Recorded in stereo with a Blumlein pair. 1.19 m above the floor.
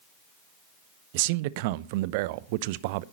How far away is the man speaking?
About 0.7 m.